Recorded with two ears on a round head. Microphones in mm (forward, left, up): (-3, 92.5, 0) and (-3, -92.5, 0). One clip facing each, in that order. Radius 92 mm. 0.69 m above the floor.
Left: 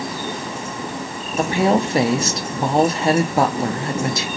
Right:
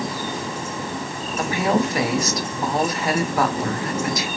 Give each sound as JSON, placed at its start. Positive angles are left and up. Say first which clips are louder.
{"t": 1.4, "sound": "a woman speaking", "louder": "left 3 dB", "side_deg": 25, "distance_m": 0.6}